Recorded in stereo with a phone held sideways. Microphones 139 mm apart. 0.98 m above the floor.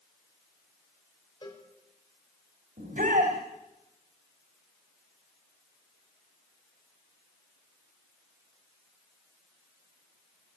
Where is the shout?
80° right, 4 m.